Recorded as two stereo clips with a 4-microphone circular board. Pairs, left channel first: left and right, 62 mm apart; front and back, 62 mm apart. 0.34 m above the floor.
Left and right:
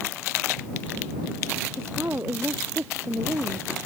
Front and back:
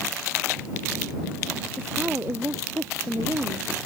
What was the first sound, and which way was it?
A woman speaking, 135° right.